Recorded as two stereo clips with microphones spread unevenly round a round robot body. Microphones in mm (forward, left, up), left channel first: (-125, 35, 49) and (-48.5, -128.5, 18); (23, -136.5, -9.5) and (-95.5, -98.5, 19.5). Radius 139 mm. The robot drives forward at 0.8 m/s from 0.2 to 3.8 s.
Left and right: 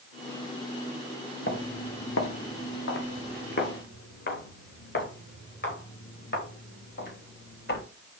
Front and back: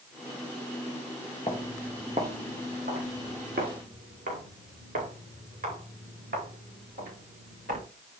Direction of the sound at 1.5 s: 55° left.